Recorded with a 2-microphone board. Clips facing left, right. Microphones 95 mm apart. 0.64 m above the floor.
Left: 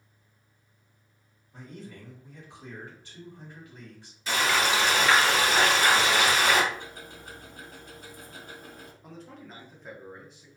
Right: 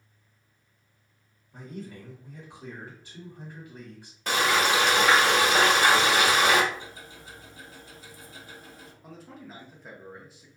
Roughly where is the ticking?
Left.